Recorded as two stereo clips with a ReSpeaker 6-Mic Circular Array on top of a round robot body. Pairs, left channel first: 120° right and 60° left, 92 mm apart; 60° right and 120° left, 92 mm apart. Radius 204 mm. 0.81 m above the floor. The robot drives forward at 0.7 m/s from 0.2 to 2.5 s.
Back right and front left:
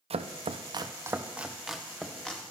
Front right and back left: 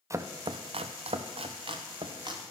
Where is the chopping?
60° left, 0.6 m; by 2.4 s 160° left, 1.4 m.